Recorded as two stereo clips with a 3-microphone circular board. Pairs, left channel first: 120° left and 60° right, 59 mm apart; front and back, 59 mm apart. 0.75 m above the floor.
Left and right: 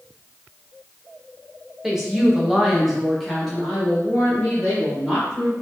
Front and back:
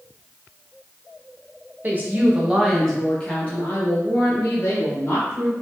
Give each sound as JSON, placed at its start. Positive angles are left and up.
{"t": 1.8, "sound": "a woman speaking", "azimuth_deg": -140, "distance_m": 0.8}